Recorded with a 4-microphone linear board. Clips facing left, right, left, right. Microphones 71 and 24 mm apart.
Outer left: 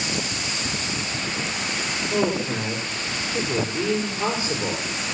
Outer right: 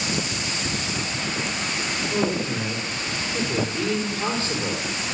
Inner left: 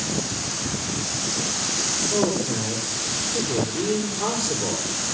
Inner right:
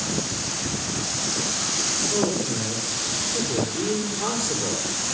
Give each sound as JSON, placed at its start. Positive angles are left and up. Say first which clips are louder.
{"t": 2.1, "sound": "a man speaking", "louder": "outer left 2 dB, inner left 1 dB", "side_deg": 10, "distance_m": 5.5}